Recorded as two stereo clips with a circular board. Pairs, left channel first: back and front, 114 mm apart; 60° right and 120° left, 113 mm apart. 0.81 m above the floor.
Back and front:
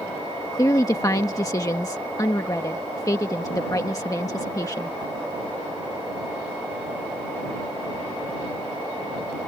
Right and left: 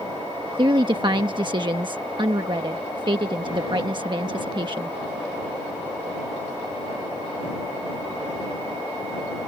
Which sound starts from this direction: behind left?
A woman speaking, at 0.5 s.